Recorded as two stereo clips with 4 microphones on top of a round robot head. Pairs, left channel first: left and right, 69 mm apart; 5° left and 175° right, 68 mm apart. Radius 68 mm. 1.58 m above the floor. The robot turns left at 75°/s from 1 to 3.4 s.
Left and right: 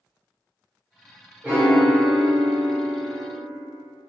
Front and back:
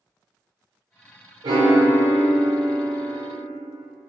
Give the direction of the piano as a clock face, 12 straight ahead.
6 o'clock.